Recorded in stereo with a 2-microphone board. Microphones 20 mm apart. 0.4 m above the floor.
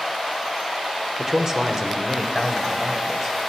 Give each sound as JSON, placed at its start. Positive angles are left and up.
{"t": 1.2, "sound": "a man speaking", "side_deg": -25, "distance_m": 1.0}